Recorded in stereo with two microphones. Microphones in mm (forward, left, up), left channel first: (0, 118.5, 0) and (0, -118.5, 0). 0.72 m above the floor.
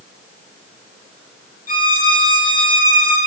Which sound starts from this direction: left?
A violin, at 1.7 s.